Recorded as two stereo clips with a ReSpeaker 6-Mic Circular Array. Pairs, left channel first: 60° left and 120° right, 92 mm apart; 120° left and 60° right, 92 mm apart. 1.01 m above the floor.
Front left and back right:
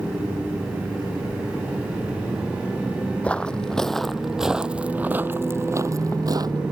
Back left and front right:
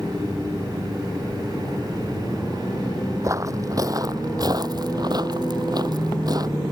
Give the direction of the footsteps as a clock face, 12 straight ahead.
12 o'clock.